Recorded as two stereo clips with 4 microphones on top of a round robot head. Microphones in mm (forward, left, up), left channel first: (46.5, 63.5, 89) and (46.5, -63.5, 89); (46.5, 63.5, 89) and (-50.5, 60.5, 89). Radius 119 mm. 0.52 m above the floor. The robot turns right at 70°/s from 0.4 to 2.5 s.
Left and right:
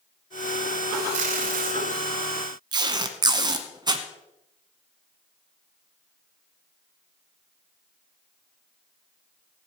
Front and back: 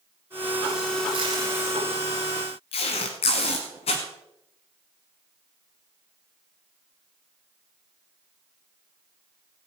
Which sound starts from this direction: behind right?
Tape being pulled, at 1.1 s.